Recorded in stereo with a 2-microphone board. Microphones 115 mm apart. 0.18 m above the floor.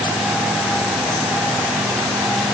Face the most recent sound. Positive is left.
No sound to turn to.